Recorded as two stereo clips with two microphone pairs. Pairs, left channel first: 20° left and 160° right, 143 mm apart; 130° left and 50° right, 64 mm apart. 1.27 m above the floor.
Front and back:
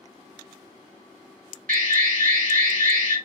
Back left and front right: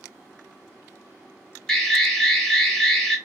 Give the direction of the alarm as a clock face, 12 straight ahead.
5 o'clock.